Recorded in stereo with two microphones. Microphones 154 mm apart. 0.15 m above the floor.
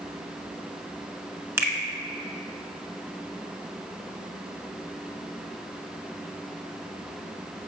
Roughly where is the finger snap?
Centre.